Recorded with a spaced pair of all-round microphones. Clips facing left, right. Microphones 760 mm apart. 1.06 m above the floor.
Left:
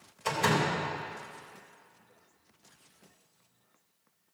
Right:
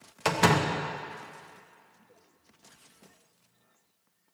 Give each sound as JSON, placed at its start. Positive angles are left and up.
{"t": 0.2, "sound": "a door slam", "side_deg": -85, "distance_m": 1.2}